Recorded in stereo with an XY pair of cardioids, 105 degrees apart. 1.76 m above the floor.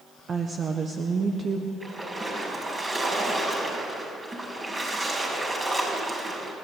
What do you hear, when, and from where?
0.3 s a woman speaking: 40° right, 1.5 m
1.8 s a splash: 25° right, 6 m